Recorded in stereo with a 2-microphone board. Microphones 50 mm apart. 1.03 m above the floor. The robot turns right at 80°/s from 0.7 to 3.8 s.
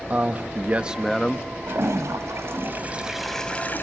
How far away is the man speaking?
About 1.3 m.